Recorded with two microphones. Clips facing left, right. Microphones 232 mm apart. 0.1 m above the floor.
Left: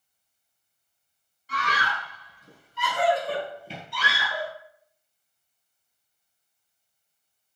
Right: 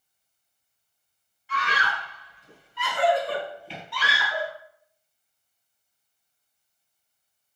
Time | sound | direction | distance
1.5 | a scream | 40° left (ahead or behind) | 1.5 m